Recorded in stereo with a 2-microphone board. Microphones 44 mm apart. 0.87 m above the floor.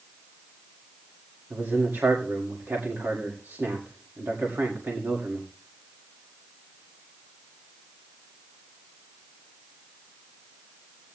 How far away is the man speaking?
About 1.8 m.